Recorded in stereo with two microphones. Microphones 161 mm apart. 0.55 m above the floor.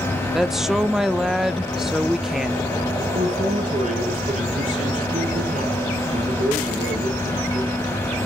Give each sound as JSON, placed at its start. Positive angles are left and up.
{"t": 0.3, "sound": "a woman speaking", "side_deg": 0, "distance_m": 0.8}
{"t": 3.1, "sound": "a man speaking", "side_deg": -50, "distance_m": 8.5}